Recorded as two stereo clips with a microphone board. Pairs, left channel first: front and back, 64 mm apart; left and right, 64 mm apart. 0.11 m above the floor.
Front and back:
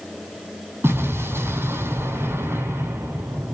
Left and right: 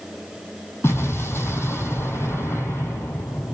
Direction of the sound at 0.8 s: 135° left.